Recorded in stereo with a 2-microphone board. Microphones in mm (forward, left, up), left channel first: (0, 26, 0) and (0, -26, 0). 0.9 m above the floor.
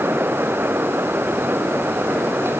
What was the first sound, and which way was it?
Only background noise.